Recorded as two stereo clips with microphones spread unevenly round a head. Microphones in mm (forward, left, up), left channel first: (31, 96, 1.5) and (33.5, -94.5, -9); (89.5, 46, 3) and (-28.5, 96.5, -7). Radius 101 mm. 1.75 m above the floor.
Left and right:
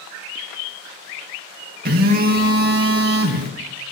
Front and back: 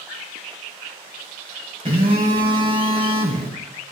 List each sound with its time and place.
1.9 s a phone buzzing: 135° right, 1.8 m